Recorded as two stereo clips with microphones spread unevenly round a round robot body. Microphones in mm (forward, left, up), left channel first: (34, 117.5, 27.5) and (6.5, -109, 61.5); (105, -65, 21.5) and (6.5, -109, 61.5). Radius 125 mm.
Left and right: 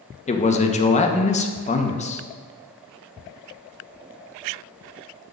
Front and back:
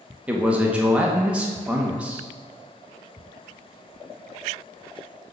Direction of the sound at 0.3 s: 105° left.